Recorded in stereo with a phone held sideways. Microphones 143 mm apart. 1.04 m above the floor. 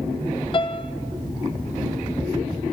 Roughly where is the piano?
Left.